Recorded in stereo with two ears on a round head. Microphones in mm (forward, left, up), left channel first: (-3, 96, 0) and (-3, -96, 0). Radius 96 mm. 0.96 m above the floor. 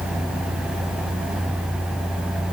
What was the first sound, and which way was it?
Only background noise.